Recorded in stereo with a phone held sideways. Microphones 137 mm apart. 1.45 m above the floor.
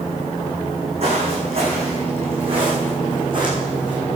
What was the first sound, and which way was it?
Footsteps, 50° right (ahead or behind).